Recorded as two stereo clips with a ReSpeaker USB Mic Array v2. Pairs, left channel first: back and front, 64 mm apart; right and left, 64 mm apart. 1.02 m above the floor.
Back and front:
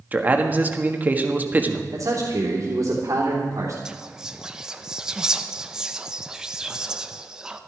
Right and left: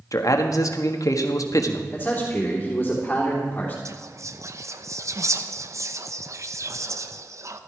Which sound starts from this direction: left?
Whispering, at 3.9 s.